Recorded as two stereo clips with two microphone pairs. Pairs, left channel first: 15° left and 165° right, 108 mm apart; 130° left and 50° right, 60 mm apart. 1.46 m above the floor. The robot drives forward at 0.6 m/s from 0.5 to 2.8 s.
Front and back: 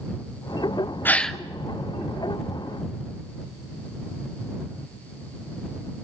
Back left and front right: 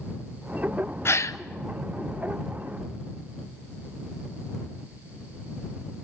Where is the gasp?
90° left, 0.6 m; by 1.4 s 110° left, 0.6 m.